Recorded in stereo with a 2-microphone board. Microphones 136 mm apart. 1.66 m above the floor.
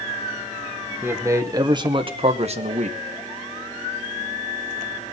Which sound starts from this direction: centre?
A man speaking, at 1.0 s.